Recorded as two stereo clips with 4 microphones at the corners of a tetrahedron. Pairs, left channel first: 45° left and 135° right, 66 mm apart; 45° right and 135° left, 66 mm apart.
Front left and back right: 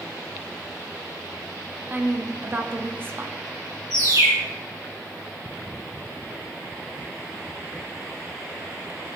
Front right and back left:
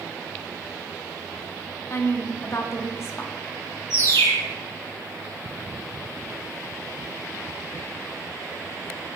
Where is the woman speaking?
80° right, 0.9 m.